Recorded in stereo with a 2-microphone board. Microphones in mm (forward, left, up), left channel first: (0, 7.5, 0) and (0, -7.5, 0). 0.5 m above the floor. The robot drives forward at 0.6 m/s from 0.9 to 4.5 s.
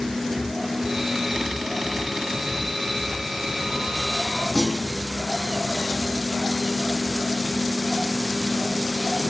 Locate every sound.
4.5 s a clunk: 40° right (ahead or behind), 5.5 m